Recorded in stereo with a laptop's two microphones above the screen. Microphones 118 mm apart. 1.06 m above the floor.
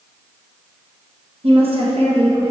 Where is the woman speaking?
60° right (ahead or behind), 1.1 m.